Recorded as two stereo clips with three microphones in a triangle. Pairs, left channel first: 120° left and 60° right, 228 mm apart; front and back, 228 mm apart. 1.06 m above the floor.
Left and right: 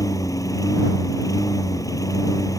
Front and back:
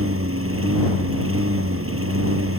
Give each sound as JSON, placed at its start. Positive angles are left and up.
{"t": 0.0, "sound": "a lawn mower", "azimuth_deg": -165}